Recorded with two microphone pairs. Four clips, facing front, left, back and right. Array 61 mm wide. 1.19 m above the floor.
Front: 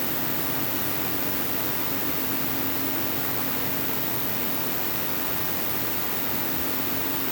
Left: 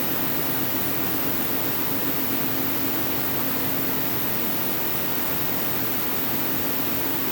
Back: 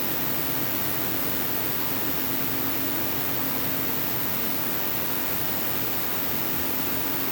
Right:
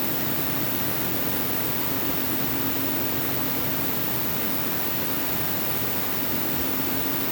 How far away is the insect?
About 6.5 m.